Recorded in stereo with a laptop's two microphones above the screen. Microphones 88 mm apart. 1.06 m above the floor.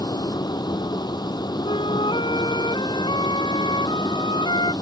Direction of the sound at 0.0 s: 50° left (ahead or behind).